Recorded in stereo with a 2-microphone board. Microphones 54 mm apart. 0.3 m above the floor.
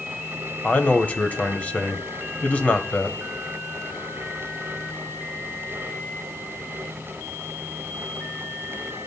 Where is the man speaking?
25° left (ahead or behind), 1.5 m.